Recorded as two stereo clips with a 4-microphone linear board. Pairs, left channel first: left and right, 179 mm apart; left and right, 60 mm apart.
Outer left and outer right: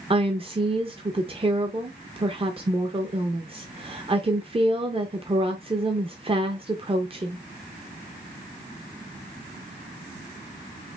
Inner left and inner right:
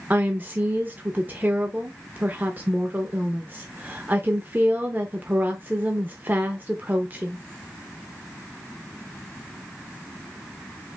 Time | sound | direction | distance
0.1 | a woman speaking | 30° right (ahead or behind) | 0.6 m